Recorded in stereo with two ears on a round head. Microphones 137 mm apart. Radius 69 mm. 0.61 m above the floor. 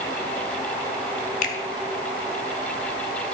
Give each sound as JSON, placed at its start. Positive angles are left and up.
{"t": 1.4, "sound": "a finger snap", "side_deg": 50, "distance_m": 1.3}